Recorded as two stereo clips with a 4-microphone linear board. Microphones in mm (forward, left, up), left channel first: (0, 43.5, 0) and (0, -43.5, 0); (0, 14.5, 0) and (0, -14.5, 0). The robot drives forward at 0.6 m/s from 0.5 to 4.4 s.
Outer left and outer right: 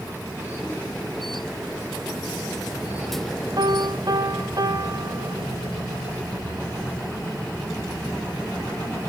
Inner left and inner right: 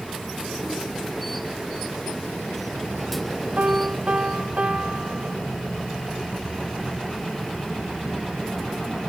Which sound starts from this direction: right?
A piano, at 3.6 s.